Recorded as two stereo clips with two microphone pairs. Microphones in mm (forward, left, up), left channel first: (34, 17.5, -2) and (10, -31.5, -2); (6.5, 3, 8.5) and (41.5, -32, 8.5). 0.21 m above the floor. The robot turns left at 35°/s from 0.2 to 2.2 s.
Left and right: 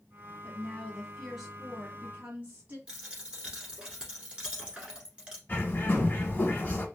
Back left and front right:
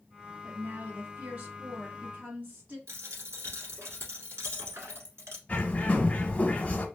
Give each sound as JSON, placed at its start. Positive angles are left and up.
{"t": 0.4, "sound": "a woman speaking", "azimuth_deg": -5, "distance_m": 1.3}
{"t": 2.9, "sound": "a dropped coin", "azimuth_deg": -45, "distance_m": 1.3}
{"t": 5.5, "sound": "a bird", "azimuth_deg": 90, "distance_m": 0.8}